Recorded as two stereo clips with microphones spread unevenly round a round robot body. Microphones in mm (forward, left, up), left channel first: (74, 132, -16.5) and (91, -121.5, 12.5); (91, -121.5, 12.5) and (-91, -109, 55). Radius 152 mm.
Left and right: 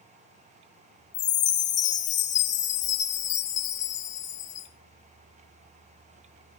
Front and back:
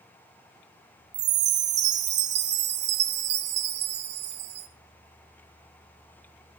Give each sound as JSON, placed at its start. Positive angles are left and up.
{"t": 1.1, "sound": "a chime", "azimuth_deg": 150, "distance_m": 1.5}